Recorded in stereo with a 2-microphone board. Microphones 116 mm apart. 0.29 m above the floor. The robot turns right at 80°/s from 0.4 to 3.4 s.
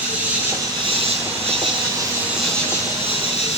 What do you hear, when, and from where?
0.0 s an insect: 165° right, 4 m; by 3.6 s 75° left, 4 m